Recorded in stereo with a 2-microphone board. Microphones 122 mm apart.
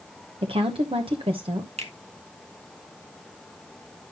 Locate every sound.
0.4 s a woman speaking: 50° right (ahead or behind), 0.9 m
1.8 s a finger snap: 65° right (ahead or behind), 1.7 m